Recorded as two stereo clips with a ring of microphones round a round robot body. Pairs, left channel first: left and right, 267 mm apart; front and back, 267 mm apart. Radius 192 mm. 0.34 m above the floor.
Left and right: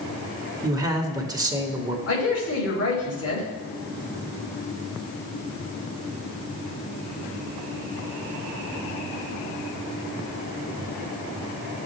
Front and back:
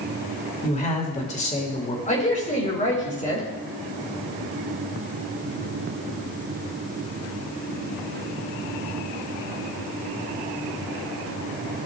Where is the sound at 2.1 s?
60° left, 4.5 m.